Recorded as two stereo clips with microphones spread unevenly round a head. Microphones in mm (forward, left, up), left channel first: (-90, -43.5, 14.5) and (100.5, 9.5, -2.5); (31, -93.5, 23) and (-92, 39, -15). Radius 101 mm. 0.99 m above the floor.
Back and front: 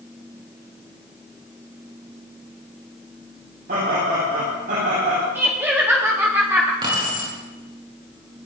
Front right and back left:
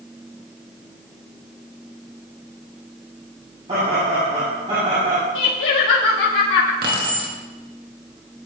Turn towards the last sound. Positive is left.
turn(degrees=85)